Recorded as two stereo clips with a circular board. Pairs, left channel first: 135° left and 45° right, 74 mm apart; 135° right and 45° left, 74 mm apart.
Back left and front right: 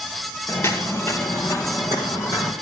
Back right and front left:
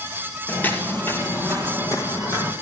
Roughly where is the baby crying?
No baby crying in this recording.